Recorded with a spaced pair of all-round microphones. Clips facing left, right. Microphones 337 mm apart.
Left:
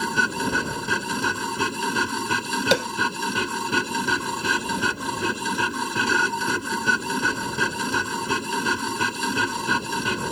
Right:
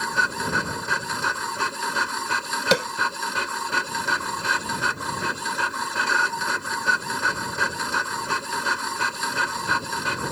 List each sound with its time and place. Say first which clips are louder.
0.0 s a machine running: left 5 dB; 45° left (ahead or behind)
2.7 s tapping: even; centre (ahead or behind)